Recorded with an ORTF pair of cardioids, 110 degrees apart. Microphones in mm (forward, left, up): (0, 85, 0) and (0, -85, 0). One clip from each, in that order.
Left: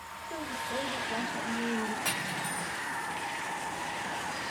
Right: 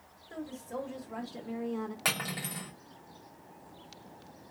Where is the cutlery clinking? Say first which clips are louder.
Left 1 dB; 35° right, 1.2 m.